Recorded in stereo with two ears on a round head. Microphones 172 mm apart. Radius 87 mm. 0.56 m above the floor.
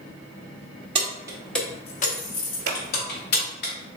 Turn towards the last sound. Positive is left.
turn(degrees=-55)  # may be behind; listen again after turning